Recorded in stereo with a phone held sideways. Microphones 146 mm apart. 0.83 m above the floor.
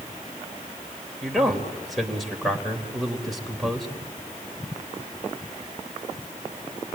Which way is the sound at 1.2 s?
Centre (ahead or behind).